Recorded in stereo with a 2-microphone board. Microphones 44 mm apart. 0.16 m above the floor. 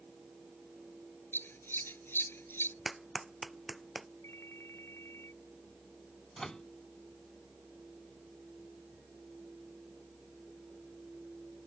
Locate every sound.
1.3 s scissors: 60° left (ahead or behind)
2.9 s a clap: 5° right (ahead or behind)
4.2 s a ringtone: 80° left
6.4 s a microwave: 15° left (ahead or behind)